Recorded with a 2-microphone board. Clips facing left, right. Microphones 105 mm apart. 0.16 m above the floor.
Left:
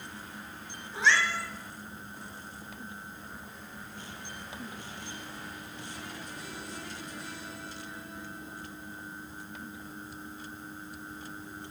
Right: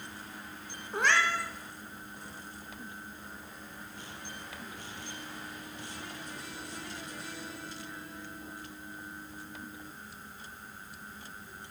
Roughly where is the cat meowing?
Right.